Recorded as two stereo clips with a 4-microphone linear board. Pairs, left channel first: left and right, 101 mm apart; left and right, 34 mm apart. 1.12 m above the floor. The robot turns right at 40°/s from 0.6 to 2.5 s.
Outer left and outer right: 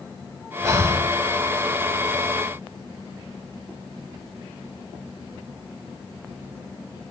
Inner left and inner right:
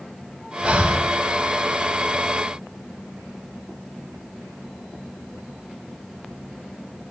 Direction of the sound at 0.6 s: 30° right (ahead or behind).